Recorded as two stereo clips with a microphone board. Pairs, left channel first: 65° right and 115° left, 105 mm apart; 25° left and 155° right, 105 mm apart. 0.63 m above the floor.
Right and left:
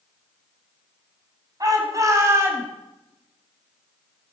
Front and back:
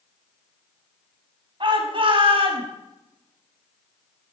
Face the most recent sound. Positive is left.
turn(degrees=180)